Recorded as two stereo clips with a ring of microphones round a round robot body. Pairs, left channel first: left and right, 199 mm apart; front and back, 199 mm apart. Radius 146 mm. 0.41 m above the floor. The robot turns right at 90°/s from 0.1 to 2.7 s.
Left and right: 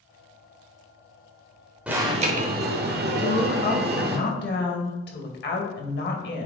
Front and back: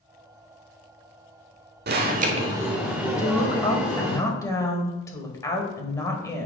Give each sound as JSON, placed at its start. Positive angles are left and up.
{"t": 1.9, "sound": "an alarm", "azimuth_deg": -175, "distance_m": 0.8}
{"t": 3.2, "sound": "a woman speaking", "azimuth_deg": 75, "distance_m": 2.0}